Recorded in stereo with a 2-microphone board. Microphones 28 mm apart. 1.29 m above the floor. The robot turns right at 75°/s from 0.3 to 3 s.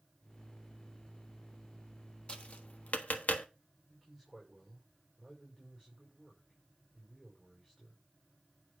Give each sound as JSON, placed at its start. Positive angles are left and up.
{"t": 2.3, "sound": "tapping", "side_deg": 35, "distance_m": 1.4}
{"t": 3.9, "sound": "a man speaking", "side_deg": 5, "distance_m": 5.5}